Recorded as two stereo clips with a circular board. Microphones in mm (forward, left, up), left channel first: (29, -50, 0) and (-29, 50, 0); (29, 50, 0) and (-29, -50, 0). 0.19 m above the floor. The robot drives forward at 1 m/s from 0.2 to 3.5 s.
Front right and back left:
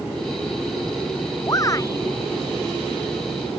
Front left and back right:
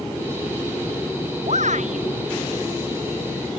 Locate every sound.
1.5 s a shout: 120° right